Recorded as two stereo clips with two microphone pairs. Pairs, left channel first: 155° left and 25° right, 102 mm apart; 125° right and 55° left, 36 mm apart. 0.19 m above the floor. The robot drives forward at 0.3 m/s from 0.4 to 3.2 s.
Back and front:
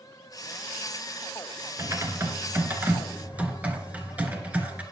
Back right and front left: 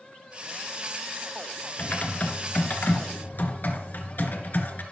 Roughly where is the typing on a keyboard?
Right.